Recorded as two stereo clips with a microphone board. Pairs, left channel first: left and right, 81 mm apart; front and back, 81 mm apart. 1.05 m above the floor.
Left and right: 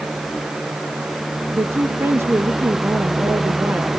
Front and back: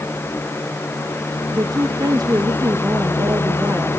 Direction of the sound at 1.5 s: 145° right.